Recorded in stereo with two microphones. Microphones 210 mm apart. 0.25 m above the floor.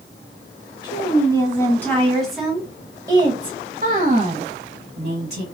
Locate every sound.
0.8 s a woman speaking: 20° left (ahead or behind), 1.7 m; by 5.4 s 50° right (ahead or behind), 1.8 m